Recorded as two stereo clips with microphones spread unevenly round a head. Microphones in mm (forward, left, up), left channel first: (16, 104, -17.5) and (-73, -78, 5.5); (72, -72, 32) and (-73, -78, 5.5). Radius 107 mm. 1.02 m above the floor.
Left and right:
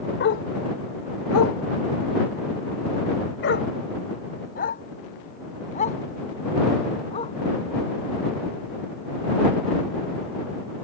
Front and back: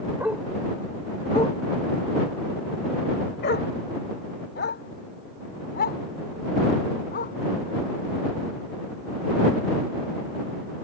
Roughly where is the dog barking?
Left.